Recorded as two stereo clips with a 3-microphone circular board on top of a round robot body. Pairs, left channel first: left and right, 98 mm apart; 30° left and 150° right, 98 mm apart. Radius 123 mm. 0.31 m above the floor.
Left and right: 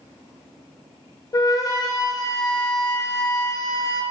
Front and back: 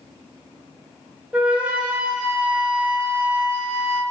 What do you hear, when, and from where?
1.3 s a flute: 135° left, 0.5 m